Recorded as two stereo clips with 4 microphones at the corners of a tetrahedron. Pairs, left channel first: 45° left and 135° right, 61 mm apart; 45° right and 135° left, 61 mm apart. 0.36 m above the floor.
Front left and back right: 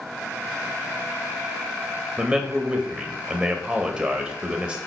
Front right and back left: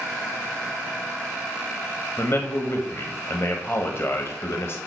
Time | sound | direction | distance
2.2 | a man speaking | 65° right | 1.5 m